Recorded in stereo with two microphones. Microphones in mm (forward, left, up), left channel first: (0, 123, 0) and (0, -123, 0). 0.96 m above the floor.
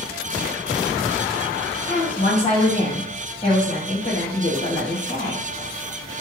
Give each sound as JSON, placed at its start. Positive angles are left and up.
{"t": 1.9, "sound": "a woman speaking", "side_deg": 25, "distance_m": 1.3}